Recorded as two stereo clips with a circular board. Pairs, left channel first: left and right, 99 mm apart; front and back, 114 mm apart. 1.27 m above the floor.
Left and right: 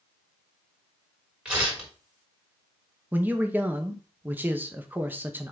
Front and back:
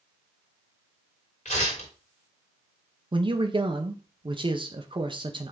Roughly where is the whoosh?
I don't hear a whoosh.